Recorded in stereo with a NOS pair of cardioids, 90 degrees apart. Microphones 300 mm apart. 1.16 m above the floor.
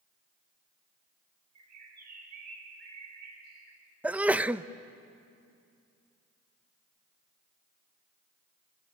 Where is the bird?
60° right, 5 m.